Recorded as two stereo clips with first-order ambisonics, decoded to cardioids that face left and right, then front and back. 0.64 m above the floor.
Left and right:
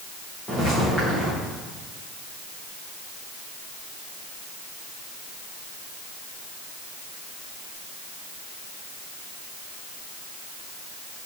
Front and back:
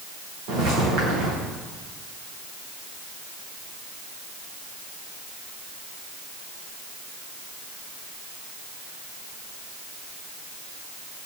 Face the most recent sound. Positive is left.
turn(degrees=180)